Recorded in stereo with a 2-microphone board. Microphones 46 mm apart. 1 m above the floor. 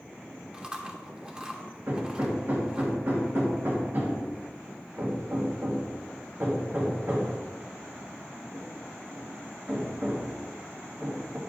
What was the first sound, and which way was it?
Chewing, 20° right (ahead or behind).